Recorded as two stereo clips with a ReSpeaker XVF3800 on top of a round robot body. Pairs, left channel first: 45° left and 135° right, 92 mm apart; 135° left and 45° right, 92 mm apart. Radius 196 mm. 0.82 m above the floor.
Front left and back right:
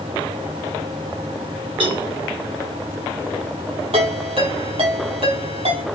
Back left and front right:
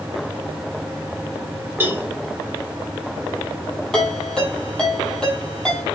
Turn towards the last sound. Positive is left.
turn(degrees=-140)